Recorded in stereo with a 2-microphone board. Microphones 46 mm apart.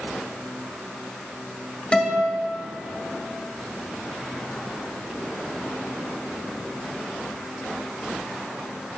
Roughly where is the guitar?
Left.